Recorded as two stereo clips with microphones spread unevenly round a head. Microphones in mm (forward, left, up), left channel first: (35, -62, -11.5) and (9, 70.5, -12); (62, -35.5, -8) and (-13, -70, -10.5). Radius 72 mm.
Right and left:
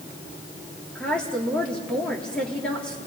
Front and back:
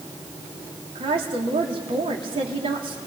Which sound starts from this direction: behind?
A woman speaking, at 0.9 s.